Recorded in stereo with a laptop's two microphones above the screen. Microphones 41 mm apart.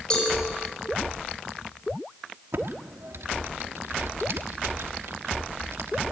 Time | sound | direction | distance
0.1 | a cowbell | 25° left (ahead or behind) | 6.5 m
2.5 | typing on a keyboard | 80° right | 1.2 m